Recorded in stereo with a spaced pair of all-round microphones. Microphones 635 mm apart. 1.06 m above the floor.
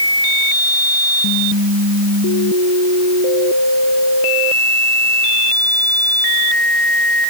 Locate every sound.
Only background noise.